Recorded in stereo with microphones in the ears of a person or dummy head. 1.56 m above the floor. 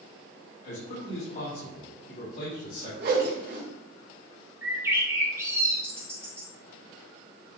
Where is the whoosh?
65° right (ahead or behind), 1.6 m.